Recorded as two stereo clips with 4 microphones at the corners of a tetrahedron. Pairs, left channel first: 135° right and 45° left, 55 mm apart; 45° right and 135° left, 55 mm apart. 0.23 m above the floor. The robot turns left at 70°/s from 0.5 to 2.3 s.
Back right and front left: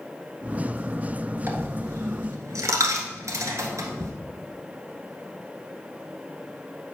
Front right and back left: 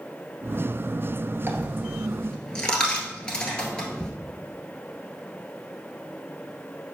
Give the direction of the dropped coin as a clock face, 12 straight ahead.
9 o'clock.